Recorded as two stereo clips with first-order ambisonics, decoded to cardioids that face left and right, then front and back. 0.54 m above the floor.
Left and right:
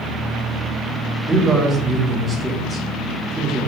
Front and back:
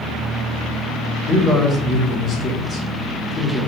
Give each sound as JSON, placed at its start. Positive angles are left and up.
{"t": 1.3, "sound": "a man speaking", "azimuth_deg": -15, "distance_m": 1.0}